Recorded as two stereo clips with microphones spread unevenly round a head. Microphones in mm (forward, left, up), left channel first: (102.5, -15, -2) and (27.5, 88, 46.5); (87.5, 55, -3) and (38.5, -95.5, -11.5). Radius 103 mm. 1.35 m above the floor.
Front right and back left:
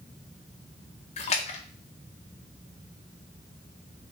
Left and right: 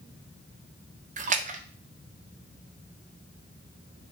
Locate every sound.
1.2 s a splash: 70° right, 0.6 m